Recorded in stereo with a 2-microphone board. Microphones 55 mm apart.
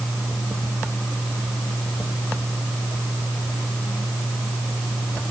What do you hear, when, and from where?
Only background noise.